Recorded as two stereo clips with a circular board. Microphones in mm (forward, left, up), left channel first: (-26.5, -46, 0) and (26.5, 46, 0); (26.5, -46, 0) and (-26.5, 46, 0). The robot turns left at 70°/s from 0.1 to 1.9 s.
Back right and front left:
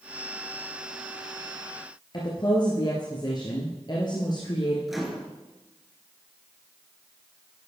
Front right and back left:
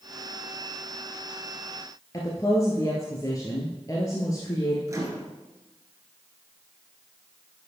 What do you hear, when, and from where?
2.1 s a woman speaking: 105° right, 1.8 m
4.9 s a microwave: 145° left, 1.6 m